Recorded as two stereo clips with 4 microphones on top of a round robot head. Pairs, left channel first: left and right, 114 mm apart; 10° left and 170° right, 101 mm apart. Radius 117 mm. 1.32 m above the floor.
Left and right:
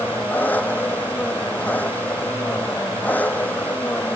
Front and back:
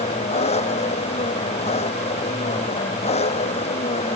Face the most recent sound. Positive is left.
turn(degrees=15)